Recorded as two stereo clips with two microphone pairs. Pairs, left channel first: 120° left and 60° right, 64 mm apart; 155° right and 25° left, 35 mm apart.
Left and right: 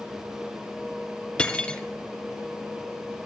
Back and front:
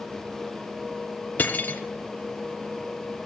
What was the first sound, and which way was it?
Cutlery clinking, 165° right.